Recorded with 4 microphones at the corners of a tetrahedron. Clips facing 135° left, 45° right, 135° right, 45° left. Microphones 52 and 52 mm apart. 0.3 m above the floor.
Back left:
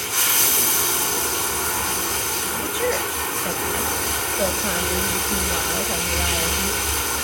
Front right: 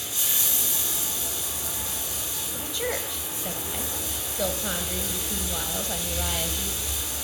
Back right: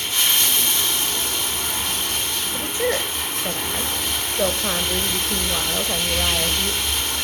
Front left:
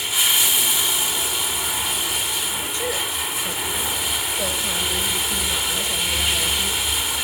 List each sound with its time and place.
0.0 s running water: 130° left, 2 m
2.5 s a woman speaking: 160° right, 1.0 m